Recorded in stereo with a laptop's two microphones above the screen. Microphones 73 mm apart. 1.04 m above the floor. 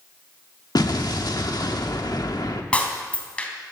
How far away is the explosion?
About 1.2 m.